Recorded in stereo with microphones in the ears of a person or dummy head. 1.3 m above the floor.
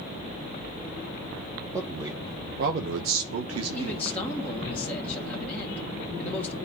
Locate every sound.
1.7 s a man speaking: 10° right (ahead or behind), 1.6 m; by 4.1 s 75° right (ahead or behind), 2.0 m
3.7 s a man speaking: 15° left (ahead or behind), 1.9 m